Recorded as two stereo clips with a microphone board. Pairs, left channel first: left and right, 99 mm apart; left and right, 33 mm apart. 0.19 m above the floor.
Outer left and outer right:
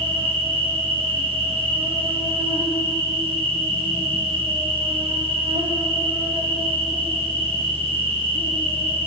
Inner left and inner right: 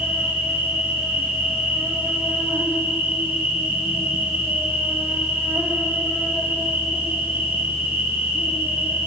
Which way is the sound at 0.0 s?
65° right (ahead or behind).